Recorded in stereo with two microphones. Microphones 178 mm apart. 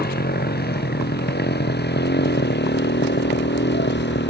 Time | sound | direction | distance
0.0 | a motorcycle | 60° left (ahead or behind) | ?